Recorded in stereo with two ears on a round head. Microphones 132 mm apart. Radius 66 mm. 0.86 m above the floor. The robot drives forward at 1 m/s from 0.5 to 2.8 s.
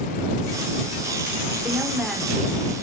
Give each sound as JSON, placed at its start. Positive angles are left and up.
{"t": 1.6, "sound": "a woman speaking", "side_deg": 0, "distance_m": 3.5}